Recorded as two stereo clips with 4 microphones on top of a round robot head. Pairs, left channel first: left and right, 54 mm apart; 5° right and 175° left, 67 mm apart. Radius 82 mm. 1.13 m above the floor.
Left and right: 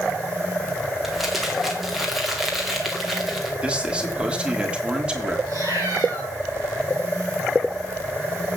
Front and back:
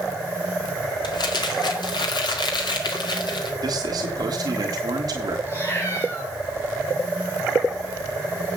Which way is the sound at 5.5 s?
65° right.